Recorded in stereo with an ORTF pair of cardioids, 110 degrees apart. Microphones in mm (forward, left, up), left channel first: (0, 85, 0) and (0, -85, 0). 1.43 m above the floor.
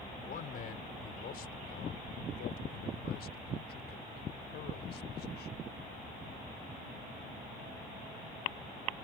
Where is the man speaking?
55° left; by 5.7 s 80° left.